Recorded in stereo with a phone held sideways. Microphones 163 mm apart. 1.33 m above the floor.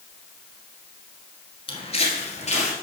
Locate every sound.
1.7 s footsteps: 35° left (ahead or behind), 1.5 m; by 2.7 s 45° left (ahead or behind), 1.9 m